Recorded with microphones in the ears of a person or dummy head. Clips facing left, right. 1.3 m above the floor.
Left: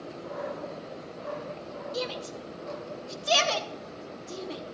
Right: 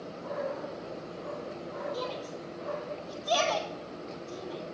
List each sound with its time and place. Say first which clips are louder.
1.9 s a shout: left 2 dB; 30° left (ahead or behind), 1.1 m